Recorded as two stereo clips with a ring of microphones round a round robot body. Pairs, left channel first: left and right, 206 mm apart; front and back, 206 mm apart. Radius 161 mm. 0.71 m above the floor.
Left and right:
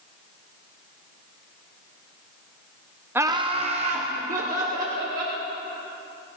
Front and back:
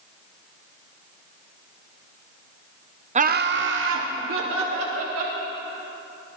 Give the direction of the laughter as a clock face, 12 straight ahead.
5 o'clock.